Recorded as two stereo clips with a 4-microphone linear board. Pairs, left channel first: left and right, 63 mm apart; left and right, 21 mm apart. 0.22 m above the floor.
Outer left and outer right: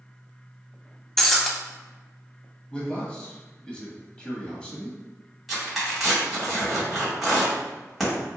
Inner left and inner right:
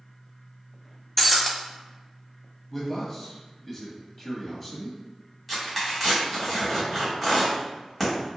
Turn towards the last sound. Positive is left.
turn(degrees=5)  # may be behind; listen again after turning